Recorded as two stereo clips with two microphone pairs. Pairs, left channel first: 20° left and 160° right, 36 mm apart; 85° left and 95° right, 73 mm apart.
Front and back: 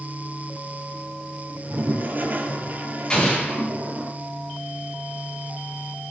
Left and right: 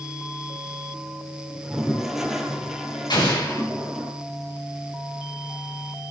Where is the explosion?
85° left, 7.5 m.